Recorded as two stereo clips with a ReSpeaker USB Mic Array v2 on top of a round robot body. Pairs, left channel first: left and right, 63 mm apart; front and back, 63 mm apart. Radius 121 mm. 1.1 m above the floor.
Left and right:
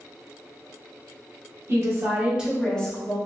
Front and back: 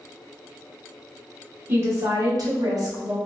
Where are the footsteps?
No footsteps in this recording.